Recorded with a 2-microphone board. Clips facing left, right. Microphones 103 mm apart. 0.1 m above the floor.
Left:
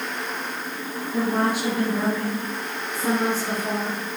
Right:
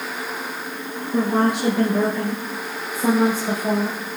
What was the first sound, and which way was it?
A woman speaking, 70° right (ahead or behind).